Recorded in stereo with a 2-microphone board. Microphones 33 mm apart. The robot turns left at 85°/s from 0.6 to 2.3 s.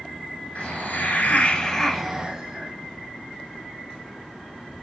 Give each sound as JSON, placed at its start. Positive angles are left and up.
{"t": 0.6, "sound": "a hiss", "azimuth_deg": 110, "distance_m": 2.0}